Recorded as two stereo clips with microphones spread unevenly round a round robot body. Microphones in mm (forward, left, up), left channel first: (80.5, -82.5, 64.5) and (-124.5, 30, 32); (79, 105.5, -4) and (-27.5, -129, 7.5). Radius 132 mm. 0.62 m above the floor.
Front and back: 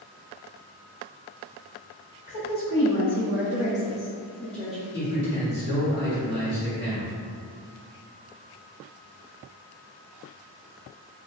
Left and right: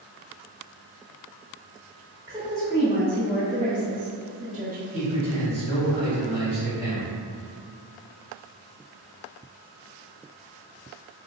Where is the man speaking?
5° left, 1.5 m.